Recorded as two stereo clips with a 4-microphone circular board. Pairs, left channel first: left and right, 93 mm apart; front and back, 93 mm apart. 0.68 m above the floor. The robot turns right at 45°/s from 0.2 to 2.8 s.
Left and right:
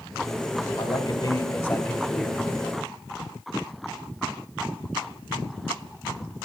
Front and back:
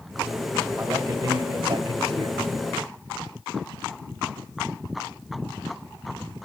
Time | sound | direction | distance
0.8 | a man speaking | 120° left | 2 m